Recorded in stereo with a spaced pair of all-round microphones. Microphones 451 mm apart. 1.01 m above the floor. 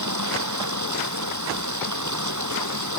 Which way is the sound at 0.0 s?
40° right (ahead or behind).